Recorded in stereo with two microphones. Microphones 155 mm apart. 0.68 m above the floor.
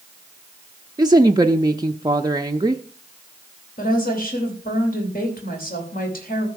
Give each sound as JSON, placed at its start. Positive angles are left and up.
{"t": 1.0, "sound": "a woman speaking", "side_deg": -25, "distance_m": 0.6}
{"t": 3.8, "sound": "a woman speaking", "side_deg": 70, "distance_m": 3.5}